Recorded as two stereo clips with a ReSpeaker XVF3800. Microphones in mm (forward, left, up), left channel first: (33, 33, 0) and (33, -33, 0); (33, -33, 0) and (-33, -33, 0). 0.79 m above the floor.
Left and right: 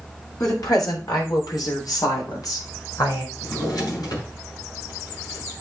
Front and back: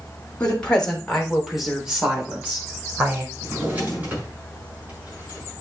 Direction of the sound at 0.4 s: 70° left.